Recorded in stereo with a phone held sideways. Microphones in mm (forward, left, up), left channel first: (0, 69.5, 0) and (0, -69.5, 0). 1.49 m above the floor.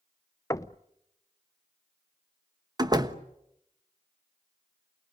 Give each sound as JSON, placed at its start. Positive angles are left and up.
{"t": 0.5, "sound": "knocking", "side_deg": 25, "distance_m": 0.6}
{"t": 2.8, "sound": "a door slam", "side_deg": -30, "distance_m": 1.1}